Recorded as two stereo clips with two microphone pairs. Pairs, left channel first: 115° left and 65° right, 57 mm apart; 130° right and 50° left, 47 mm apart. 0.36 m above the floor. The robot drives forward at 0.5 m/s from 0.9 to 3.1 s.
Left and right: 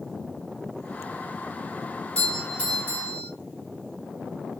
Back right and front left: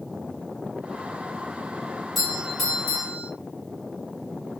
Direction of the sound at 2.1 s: 150° left.